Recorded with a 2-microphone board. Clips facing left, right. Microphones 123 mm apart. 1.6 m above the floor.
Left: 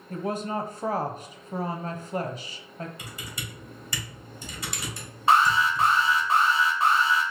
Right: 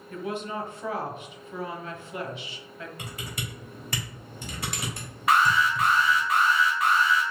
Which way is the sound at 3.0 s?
60° right (ahead or behind).